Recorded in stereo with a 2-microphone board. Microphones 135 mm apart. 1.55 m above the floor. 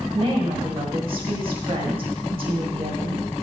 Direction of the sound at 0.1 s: 45° right (ahead or behind).